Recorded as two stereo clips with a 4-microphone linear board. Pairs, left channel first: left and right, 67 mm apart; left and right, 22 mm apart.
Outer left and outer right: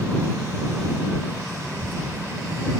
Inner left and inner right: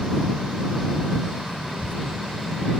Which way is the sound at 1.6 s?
30° left (ahead or behind).